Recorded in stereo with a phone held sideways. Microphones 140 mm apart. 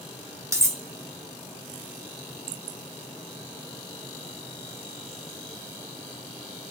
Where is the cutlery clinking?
20° right (ahead or behind), 0.5 m.